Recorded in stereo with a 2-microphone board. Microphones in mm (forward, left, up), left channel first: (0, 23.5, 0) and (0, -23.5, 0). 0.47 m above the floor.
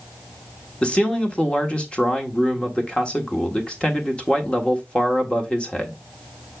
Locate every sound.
0.8 s a man speaking: 20° left (ahead or behind), 1.4 m